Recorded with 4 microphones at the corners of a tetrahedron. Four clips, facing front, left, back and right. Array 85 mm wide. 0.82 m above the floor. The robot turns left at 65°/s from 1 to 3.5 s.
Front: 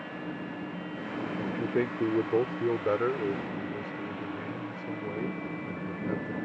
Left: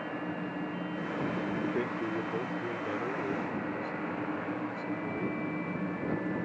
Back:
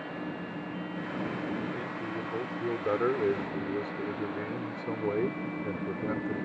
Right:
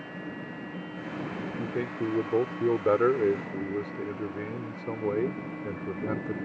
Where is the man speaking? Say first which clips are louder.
Right 2 dB, front 5 dB; 15° left; by 6.4 s 125° right.